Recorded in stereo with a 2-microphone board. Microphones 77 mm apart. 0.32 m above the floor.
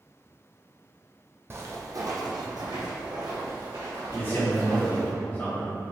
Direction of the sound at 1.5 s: 35° right (ahead or behind).